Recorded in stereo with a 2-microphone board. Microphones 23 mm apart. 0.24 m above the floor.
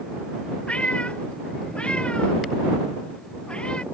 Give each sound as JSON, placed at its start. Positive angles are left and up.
{"t": 0.7, "sound": "a cat meowing", "side_deg": 55}